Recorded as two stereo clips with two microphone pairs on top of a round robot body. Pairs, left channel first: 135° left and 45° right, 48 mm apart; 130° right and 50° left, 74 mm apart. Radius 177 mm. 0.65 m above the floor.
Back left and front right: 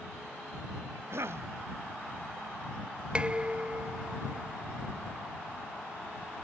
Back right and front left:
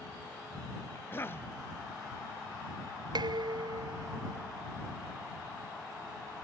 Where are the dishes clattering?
20° left.